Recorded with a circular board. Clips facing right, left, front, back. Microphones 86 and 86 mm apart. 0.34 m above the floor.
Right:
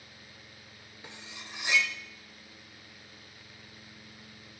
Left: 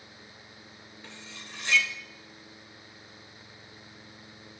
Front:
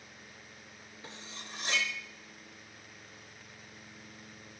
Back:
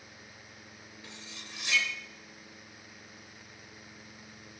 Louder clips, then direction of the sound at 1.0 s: Right 1 dB, front 3 dB; 20° right.